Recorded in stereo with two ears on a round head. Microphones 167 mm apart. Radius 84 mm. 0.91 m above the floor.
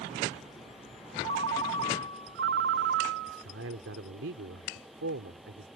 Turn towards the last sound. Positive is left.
turn(degrees=-70)  # may be behind; listen again after turning